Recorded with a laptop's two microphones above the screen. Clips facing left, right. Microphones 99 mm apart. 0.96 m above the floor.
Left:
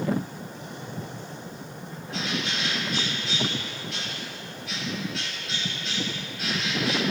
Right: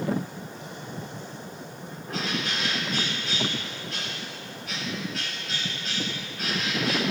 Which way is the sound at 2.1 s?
45° right (ahead or behind).